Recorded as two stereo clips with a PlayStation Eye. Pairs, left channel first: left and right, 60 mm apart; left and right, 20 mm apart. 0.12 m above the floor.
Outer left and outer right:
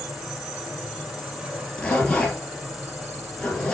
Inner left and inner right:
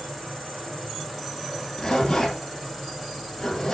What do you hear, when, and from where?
0.0 s an insect: 10° right (ahead or behind), 5 m
1.8 s a zipper: 15° left (ahead or behind), 3 m